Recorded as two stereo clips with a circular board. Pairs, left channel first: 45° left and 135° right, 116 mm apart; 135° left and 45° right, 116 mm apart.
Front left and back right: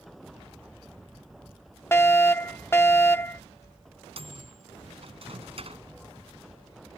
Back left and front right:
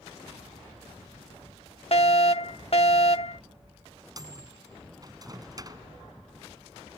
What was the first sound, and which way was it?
A fire alarm, 110° left.